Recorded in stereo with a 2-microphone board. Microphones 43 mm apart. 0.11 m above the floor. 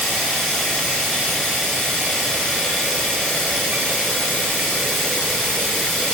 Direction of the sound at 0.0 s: 10° left (ahead or behind).